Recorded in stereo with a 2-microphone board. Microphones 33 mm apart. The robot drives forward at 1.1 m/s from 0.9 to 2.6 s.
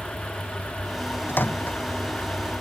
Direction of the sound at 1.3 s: 65° left (ahead or behind).